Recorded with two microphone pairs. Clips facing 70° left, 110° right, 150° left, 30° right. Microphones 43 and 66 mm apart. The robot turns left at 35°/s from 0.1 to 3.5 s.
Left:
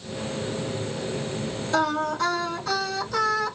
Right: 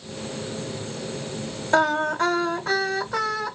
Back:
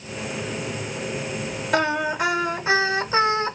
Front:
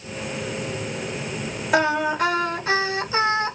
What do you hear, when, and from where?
1.7 s singing: 110° right, 2.0 m; by 3.6 s 175° right, 2.0 m